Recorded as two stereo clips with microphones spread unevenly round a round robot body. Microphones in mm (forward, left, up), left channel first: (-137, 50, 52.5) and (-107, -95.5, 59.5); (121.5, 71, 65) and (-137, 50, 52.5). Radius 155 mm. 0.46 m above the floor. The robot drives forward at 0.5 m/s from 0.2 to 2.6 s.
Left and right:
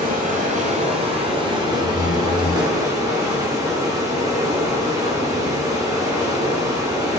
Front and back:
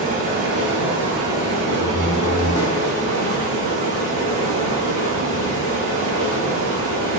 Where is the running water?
110° right, 1.1 m; by 7.2 s 150° right, 1.9 m.